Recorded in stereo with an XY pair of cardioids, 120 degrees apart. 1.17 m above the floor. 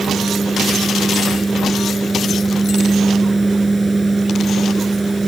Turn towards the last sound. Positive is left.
turn(degrees=-10)